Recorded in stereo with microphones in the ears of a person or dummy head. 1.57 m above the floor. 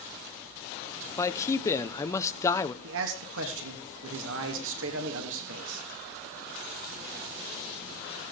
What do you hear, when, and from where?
1.2 s a man speaking: 20° left (ahead or behind), 0.9 m
2.8 s a man speaking: 75° right (ahead or behind), 3 m